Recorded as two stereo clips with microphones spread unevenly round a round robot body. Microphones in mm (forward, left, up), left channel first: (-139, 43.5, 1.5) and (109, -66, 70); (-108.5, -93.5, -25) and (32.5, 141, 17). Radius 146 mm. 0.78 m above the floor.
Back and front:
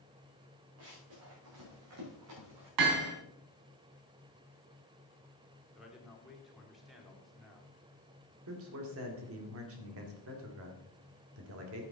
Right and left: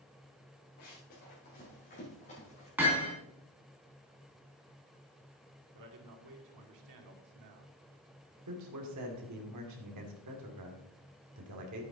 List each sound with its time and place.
0.8 s running footsteps: 65° right, 6 m; by 2.7 s 50° right, 6 m
2.8 s hammering: 25° right, 3 m
5.7 s a man speaking: 70° left, 2.5 m
8.5 s a man speaking: 20° left, 2.5 m